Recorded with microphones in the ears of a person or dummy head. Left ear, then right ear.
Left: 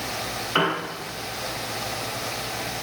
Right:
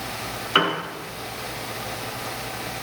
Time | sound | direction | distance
0.6 | a piano | 5° right (ahead or behind) | 9.5 m